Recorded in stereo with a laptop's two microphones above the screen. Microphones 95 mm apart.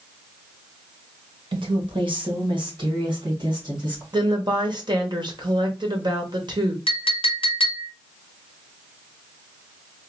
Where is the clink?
80° left, 1.1 m.